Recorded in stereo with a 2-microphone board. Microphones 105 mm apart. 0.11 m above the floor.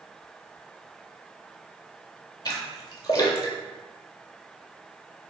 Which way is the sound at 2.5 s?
40° left (ahead or behind).